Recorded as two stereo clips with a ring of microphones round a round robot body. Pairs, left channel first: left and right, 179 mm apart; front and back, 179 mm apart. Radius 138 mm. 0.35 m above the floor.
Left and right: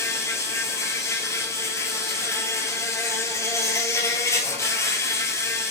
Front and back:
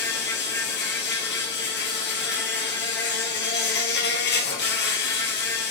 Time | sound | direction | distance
0.0 | an insect | 15° left | 1.6 m